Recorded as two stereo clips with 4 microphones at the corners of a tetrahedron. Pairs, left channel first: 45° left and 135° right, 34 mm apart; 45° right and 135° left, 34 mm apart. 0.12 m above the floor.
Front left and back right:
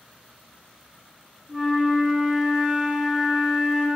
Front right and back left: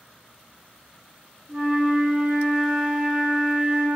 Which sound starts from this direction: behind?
A flute, at 1.5 s.